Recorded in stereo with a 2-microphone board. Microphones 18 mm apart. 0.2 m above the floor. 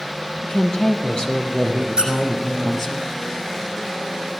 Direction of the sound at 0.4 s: 55° left (ahead or behind).